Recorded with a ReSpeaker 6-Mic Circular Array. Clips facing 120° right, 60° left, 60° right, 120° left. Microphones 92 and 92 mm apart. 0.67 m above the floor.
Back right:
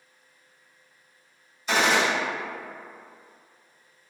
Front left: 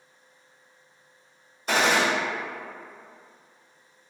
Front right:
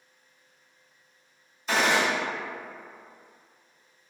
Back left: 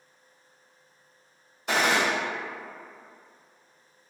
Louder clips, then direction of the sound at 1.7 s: Even, even; 100° left.